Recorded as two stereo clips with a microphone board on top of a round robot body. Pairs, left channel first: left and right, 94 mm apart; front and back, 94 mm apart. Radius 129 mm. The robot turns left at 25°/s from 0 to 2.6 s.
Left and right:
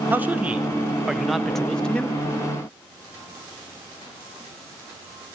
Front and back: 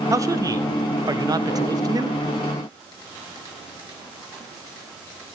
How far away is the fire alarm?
No fire alarm in this recording.